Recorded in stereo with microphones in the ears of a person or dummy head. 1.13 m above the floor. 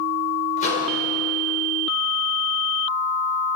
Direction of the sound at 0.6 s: 50° left (ahead or behind).